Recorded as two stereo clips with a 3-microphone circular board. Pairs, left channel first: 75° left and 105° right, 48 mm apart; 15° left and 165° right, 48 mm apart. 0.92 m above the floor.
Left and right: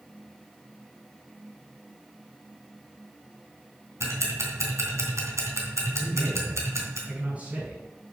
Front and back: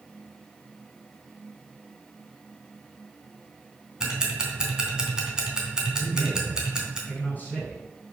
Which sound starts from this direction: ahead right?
A man speaking, at 6.0 s.